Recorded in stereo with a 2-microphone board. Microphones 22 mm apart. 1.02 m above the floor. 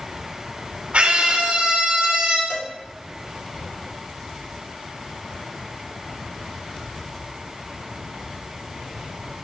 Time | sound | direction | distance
0.9 | a scream | 65° right (ahead or behind) | 3 m
2.5 | a cowbell | 85° left | 1.9 m